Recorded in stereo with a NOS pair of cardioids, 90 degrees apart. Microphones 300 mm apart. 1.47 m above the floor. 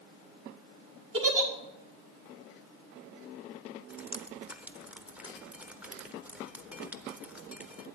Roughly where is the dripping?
Ahead.